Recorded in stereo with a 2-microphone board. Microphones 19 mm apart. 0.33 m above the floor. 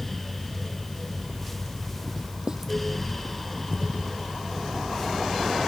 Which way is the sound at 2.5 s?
25° right (ahead or behind).